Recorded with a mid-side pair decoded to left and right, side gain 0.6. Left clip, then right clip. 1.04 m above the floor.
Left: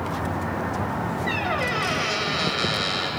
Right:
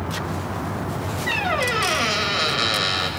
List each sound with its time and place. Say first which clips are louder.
1.3 s a squeak: right 4 dB; 20° right, 2 m